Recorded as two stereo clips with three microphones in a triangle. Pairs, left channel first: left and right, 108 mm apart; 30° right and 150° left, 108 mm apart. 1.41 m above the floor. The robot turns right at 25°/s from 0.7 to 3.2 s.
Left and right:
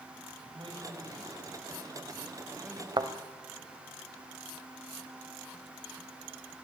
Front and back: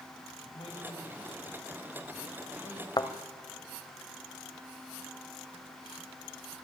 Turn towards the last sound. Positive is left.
turn(degrees=-55)